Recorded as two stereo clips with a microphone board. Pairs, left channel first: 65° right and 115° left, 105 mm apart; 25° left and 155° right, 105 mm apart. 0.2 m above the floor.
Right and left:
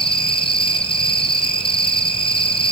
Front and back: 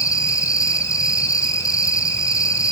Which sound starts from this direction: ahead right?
An insect, at 0.0 s.